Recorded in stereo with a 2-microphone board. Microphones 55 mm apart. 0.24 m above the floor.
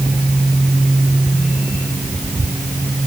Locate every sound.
Only background noise.